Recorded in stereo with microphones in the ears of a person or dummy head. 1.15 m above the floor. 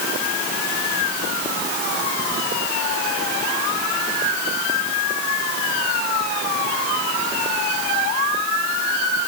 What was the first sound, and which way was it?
Only background noise.